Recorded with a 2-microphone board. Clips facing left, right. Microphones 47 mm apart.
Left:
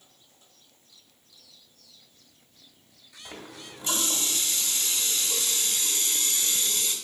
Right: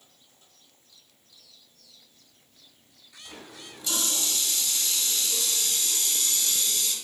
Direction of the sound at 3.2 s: 40° left (ahead or behind).